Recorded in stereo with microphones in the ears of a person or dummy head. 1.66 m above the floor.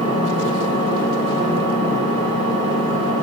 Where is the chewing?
I don't hear chewing.